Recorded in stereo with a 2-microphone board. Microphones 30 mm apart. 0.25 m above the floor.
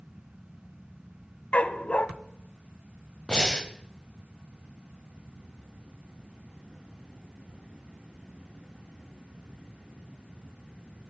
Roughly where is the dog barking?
Left.